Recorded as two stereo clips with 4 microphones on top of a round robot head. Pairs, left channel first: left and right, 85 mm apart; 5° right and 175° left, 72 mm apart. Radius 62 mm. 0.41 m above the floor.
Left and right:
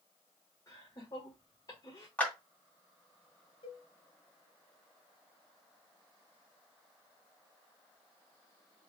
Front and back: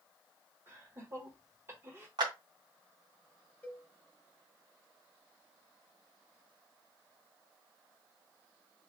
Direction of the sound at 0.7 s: 130° left.